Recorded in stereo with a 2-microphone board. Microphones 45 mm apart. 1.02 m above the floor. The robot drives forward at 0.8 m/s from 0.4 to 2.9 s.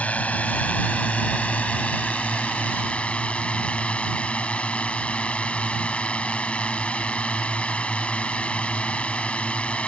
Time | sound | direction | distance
0.0 | a drone | 35° left (ahead or behind) | ?